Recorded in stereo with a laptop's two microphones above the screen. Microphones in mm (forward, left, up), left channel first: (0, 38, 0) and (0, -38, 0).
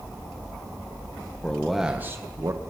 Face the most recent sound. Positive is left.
turn(degrees=-45)  # may be behind; listen again after turning